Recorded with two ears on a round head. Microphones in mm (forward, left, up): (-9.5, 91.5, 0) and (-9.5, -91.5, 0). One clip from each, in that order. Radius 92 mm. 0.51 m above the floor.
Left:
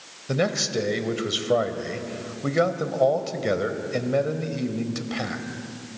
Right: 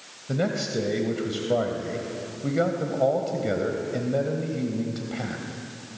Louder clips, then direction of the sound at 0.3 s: Left 3 dB; 50° left (ahead or behind).